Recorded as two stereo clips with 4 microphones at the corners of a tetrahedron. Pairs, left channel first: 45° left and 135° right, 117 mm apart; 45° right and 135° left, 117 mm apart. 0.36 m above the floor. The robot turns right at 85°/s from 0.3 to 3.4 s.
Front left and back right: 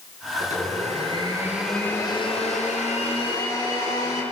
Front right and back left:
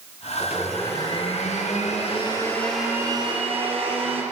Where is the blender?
155° right, 4 m; by 4.2 s 100° left, 4 m.